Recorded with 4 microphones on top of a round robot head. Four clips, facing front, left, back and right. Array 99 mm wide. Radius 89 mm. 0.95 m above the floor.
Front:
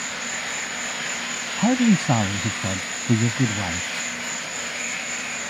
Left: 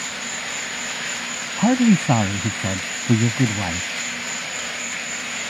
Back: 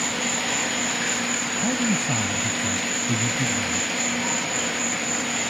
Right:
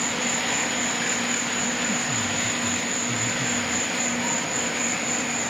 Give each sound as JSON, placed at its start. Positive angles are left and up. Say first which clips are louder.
{"t": 0.0, "sound": "an insect", "louder": "right 4 dB, back 4 dB", "azimuth_deg": -135}
{"t": 1.6, "sound": "a man speaking", "louder": "left 11 dB, front 7 dB", "azimuth_deg": 65}